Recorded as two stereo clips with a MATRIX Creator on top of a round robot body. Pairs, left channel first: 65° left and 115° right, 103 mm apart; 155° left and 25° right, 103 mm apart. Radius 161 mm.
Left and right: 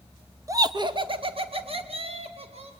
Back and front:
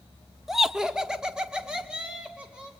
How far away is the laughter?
About 1.2 m.